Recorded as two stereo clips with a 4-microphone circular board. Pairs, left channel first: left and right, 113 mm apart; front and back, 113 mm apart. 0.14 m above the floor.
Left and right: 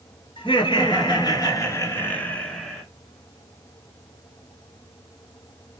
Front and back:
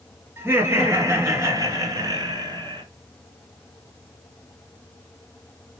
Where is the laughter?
115° left, 2 m; by 2.8 s straight behind, 1.5 m.